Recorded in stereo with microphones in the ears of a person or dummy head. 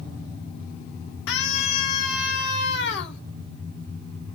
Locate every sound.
1.3 s a scream: 65° left (ahead or behind), 3 m